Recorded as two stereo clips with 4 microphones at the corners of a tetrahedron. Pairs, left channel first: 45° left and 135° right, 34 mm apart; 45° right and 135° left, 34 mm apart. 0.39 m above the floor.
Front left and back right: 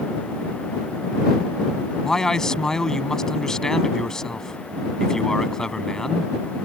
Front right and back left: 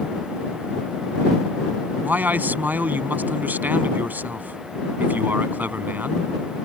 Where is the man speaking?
120° left.